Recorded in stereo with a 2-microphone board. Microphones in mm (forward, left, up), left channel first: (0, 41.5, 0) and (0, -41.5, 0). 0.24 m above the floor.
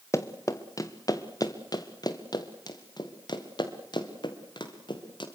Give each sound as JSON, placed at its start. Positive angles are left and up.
{"t": 0.1, "sound": "running footsteps", "side_deg": 35, "distance_m": 1.9}